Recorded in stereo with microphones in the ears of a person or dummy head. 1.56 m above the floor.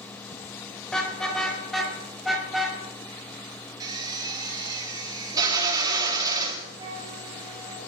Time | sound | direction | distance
0.9 | a car horn | 5° left (ahead or behind) | 3 m
3.8 | a drill | 20° right (ahead or behind) | 2 m
6.8 | a flute | 25° right (ahead or behind) | 5.5 m